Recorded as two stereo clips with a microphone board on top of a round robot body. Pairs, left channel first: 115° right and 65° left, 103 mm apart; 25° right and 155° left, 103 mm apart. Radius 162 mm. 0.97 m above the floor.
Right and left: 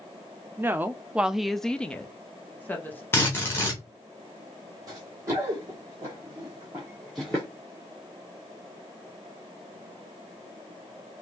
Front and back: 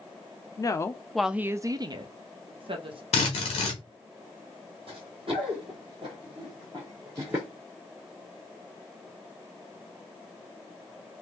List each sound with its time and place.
0.6 s a woman speaking: 10° left, 0.6 m; by 3.0 s 175° left, 1.1 m
3.1 s a drill: 45° right, 0.7 m
4.9 s running footsteps: 125° left, 1.7 m; by 7.5 s 130° right, 0.9 m